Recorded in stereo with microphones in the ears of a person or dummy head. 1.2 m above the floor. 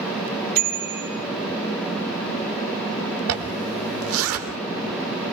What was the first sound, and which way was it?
A bicycle bell, 50° right (ahead or behind).